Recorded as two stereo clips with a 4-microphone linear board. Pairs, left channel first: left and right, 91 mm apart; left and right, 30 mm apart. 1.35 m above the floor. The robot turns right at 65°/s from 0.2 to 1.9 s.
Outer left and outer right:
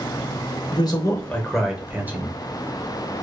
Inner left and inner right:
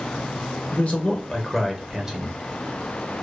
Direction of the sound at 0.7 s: 125° left.